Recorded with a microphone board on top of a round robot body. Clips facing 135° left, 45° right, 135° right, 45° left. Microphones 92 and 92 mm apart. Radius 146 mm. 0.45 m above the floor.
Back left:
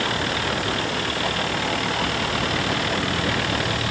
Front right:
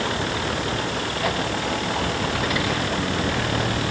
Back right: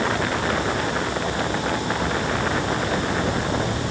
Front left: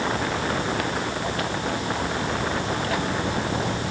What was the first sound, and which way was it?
Only background noise.